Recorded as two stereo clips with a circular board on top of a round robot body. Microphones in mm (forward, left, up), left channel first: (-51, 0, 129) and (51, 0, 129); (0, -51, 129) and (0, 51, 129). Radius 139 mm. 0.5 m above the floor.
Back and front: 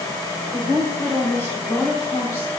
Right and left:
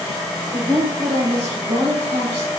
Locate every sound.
0.5 s a woman speaking: 110° left, 3.5 m